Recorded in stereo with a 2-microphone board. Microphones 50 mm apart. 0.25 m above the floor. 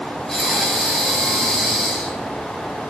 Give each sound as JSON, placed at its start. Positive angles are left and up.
{"t": 0.3, "sound": "breathing", "side_deg": 5, "distance_m": 1.2}